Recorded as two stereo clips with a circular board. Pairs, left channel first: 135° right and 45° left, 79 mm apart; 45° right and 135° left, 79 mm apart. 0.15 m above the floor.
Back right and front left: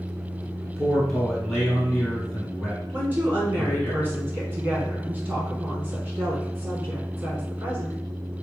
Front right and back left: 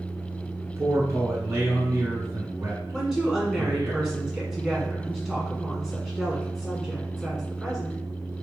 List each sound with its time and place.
0.6 s a man speaking: 145° left, 1.2 m
2.9 s a woman speaking: 60° left, 1.5 m